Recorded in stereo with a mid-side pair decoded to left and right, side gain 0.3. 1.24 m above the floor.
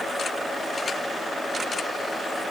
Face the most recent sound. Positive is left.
No sound to turn to.